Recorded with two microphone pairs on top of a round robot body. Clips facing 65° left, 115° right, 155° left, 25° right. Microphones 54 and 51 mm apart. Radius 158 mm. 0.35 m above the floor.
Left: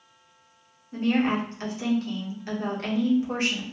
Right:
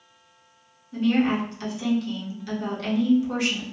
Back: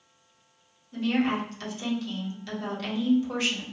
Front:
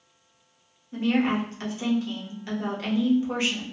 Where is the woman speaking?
25° left, 1.8 m.